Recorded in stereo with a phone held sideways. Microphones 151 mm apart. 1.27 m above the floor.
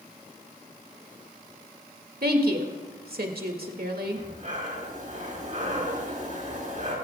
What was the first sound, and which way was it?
A woman speaking, 80° right.